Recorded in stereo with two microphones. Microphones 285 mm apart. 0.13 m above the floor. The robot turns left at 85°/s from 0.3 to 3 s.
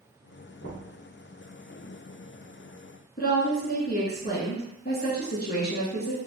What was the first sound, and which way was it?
Knocking, 40° left (ahead or behind).